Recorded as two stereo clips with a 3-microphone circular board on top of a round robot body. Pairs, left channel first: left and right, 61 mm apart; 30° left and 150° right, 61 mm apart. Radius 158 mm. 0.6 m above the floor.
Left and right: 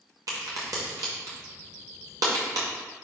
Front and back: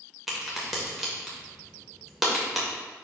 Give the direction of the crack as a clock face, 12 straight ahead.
2 o'clock.